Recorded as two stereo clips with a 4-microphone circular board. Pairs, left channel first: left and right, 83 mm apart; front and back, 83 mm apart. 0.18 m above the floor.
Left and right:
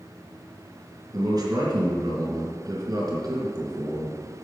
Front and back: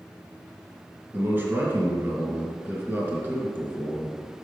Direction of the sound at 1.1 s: 120° right.